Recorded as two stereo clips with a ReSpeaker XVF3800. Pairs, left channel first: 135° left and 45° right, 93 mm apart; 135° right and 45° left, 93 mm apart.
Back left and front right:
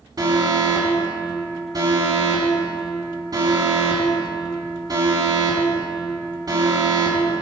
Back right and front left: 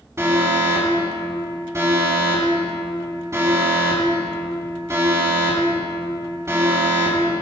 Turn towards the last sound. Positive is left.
turn(degrees=-10)